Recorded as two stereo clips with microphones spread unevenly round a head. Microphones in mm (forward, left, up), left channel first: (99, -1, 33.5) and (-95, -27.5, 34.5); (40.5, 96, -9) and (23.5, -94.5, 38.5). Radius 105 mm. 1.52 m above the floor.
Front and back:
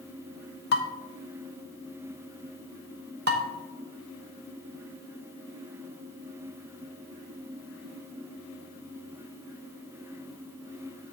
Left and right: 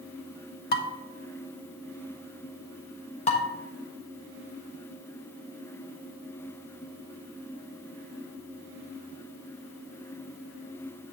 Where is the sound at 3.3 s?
150° left, 1.1 m.